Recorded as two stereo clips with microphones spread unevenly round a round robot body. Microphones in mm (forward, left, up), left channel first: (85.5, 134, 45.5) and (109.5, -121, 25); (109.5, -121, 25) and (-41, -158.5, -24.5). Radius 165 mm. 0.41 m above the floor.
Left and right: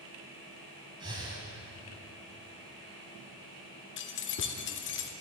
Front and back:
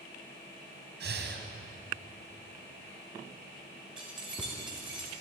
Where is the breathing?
160° right, 1.0 m.